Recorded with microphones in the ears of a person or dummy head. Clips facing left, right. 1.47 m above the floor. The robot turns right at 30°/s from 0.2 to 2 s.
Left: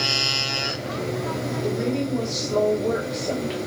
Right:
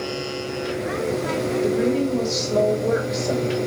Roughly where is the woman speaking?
Centre.